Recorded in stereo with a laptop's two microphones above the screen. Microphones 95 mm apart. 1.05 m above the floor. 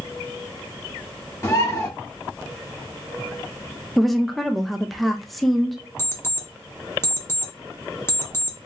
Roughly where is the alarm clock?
Left.